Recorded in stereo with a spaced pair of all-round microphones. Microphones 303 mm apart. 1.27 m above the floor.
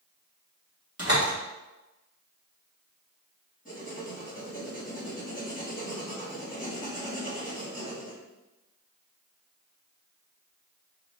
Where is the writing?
25° left (ahead or behind), 1.1 m.